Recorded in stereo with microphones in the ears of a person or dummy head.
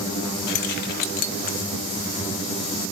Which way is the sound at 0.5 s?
50° left (ahead or behind).